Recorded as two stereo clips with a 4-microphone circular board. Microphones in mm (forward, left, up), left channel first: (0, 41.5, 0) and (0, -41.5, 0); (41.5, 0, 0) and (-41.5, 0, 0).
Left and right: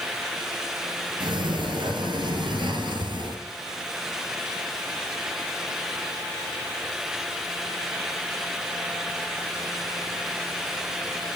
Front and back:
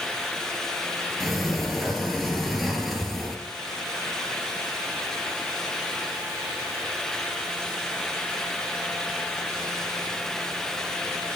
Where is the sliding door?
90° right, 3 m.